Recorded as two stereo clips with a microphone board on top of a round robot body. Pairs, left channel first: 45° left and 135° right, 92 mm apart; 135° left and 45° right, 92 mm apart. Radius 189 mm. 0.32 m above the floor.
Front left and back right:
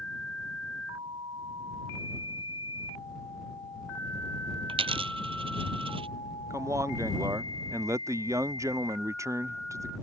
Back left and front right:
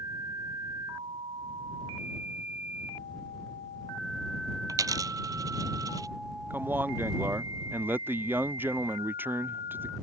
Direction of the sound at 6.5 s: 100° right.